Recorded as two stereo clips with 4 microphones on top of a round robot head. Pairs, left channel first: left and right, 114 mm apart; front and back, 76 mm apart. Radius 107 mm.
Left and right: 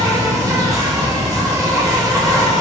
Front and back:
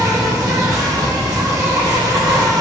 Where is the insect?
145° right, 1.2 m.